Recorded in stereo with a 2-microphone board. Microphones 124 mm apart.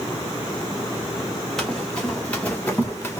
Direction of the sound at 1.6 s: 5° left (ahead or behind).